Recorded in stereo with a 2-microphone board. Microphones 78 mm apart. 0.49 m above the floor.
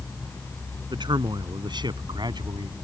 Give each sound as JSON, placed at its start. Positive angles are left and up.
{"t": 0.9, "sound": "a man speaking", "side_deg": -75}